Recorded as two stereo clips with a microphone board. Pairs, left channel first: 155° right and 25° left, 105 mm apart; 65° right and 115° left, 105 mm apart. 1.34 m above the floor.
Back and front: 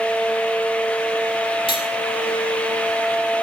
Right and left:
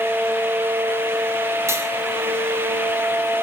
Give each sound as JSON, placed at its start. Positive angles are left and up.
{"t": 1.7, "sound": "cutlery clinking", "azimuth_deg": 175, "distance_m": 1.9}